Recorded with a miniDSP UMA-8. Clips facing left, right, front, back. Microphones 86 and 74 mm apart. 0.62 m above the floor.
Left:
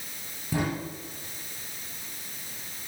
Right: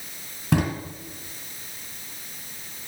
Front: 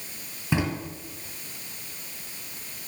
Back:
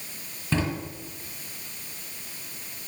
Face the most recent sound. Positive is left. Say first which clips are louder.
# right 6 dB, front 1 dB
turn(degrees=-75)